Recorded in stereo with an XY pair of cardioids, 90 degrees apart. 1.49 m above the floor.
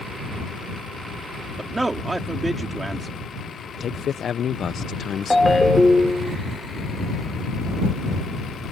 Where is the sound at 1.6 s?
25° right.